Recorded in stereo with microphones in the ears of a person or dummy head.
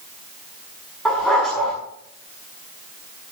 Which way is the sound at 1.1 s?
5° left (ahead or behind).